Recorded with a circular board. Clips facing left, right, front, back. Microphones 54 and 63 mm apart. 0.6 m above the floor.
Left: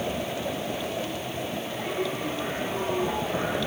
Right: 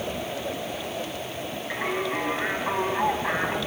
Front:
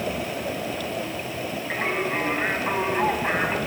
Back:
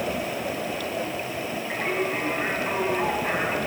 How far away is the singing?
About 5.5 m.